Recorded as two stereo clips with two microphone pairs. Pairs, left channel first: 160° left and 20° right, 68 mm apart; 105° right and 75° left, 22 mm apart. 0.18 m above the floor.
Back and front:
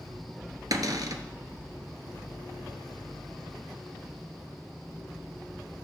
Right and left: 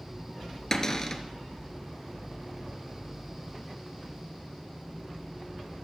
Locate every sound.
0.7 s a cupboard door: 40° right, 0.8 m